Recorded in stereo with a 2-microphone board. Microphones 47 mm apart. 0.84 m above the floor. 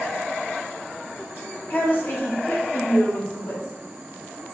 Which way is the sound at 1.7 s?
40° left (ahead or behind).